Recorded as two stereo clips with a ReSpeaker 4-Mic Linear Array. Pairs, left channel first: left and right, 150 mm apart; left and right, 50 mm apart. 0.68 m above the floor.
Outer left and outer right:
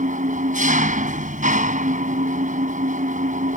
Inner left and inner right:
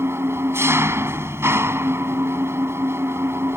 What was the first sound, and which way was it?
An engine running, 60° right (ahead or behind).